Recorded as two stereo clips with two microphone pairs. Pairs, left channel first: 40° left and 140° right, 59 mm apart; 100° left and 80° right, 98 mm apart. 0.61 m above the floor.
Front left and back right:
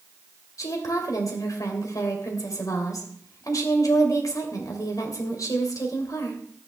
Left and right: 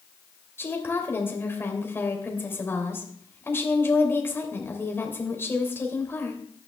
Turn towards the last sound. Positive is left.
turn(degrees=35)